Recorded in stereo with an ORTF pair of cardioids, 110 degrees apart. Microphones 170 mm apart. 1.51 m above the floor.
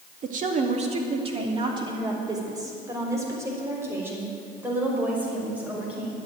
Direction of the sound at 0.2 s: 55° right.